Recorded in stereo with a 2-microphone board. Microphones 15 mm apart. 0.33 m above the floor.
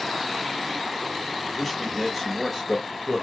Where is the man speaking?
5° left (ahead or behind), 1.2 m; by 3.2 s 15° right (ahead or behind), 1.2 m.